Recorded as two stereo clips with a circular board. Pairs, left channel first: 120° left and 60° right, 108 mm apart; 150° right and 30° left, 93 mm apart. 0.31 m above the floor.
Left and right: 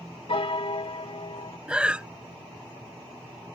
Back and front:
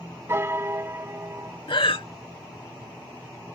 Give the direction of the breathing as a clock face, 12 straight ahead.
5 o'clock.